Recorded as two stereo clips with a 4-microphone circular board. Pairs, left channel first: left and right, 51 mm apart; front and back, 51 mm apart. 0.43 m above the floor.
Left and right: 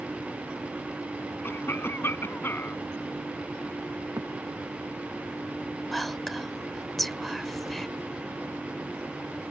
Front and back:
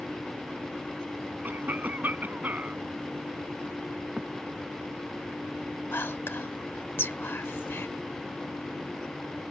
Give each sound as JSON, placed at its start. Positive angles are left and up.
{"t": 1.4, "sound": "a cough", "azimuth_deg": 130}
{"t": 4.2, "sound": "a thud", "azimuth_deg": -105}
{"t": 5.9, "sound": "whispering", "azimuth_deg": 5}